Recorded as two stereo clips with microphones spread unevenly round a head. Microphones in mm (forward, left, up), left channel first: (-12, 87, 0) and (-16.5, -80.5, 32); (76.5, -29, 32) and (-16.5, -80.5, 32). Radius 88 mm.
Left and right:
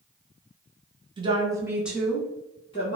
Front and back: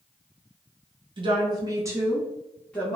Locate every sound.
1.2 s a woman speaking: 155° right, 1.0 m; by 3.0 s 95° left, 0.9 m